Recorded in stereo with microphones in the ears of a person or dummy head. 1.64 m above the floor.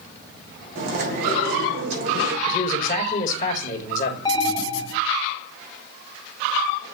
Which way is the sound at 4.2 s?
20° left (ahead or behind).